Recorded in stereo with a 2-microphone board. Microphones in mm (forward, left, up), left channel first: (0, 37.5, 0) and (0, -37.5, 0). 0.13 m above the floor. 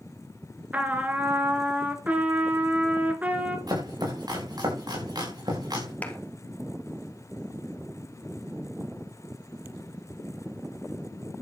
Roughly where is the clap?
Left.